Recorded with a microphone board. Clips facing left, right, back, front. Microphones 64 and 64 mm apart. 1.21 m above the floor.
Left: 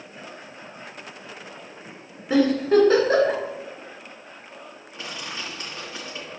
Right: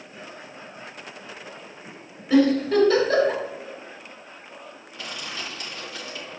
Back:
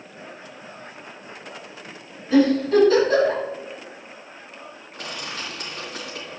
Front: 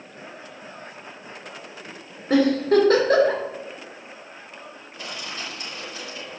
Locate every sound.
2.3 s a giggle: 30° left, 3 m
4.9 s crushing: 150° left, 3 m